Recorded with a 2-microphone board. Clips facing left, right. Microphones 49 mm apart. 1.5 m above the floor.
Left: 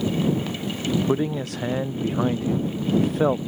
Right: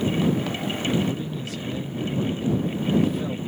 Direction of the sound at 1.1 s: 60° left (ahead or behind).